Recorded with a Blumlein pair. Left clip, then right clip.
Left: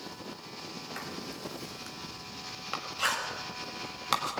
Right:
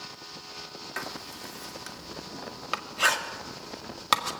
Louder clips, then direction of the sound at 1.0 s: Right 6 dB; 20° right.